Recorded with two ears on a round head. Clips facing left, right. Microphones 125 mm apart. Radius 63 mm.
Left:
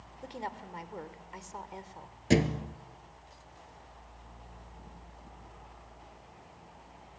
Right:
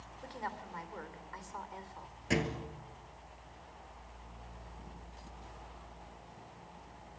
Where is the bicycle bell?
No bicycle bell in this recording.